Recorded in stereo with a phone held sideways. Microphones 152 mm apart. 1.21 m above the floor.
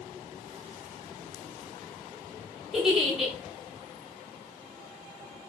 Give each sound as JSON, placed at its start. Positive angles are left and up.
{"t": 2.7, "sound": "a giggle", "side_deg": 0, "distance_m": 1.0}